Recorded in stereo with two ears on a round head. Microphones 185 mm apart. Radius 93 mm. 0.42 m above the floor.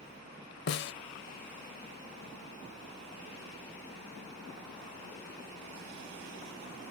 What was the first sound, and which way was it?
A snare drum, 55° left (ahead or behind).